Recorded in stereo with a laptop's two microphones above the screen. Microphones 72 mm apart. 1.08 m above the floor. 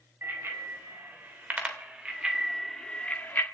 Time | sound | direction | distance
0.2 | a bicycle bell | 35° right (ahead or behind) | 3.5 m